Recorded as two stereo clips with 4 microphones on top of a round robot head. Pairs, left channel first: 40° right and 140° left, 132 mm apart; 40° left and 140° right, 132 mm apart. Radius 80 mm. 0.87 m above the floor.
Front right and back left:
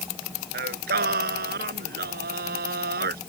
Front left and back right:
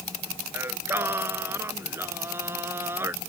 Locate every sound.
0.5 s singing: 145° left